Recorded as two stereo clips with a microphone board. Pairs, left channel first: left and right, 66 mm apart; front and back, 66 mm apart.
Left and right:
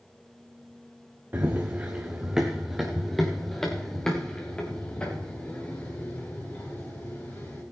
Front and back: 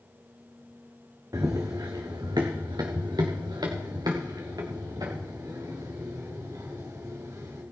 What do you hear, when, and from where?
1.3 s running footsteps: 150° right, 2 m; by 7.6 s 150° left, 6.5 m